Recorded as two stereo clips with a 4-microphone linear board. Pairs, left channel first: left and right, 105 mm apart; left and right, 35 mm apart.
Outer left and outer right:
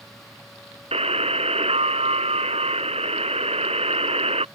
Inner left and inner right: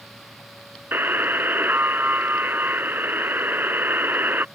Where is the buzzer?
85° right.